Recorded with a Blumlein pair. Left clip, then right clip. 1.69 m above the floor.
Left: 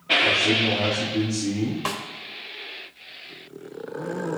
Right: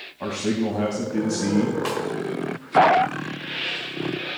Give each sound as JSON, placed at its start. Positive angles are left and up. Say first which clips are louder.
{"t": 0.2, "sound": "a man speaking", "louder": "left 7 dB", "azimuth_deg": -65, "distance_m": 2.5}
{"t": 1.9, "sound": "a snare drum", "louder": "right 2 dB", "azimuth_deg": 5, "distance_m": 1.3}